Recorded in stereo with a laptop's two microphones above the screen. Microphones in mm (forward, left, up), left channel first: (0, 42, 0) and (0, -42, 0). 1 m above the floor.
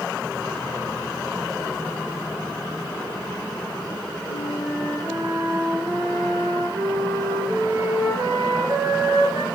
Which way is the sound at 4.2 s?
60° right (ahead or behind).